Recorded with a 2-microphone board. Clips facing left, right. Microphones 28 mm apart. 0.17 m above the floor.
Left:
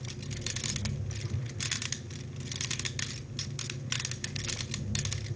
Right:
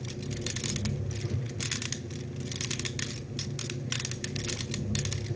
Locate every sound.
0.0 s an engine running: 60° right (ahead or behind), 3 m